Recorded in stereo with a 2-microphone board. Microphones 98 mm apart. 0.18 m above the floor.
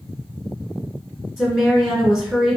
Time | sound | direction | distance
1.4 | a woman speaking | 10° right (ahead or behind) | 1.8 m